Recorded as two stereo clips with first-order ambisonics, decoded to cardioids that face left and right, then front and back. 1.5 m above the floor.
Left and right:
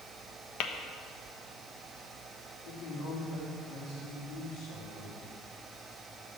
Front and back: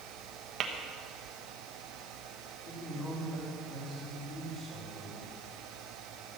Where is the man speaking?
70° left, 4.5 m.